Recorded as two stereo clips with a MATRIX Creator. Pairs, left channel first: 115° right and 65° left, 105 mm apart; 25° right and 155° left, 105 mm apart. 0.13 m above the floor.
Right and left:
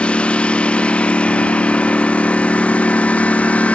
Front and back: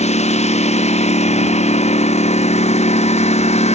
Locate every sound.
0.0 s a lawn mower: 30° right; by 3.8 s 35° right